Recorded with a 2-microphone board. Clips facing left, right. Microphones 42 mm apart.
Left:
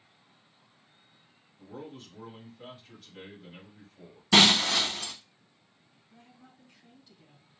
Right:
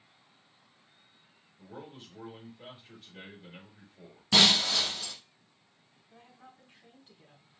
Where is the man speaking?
10° right (ahead or behind), 4 m.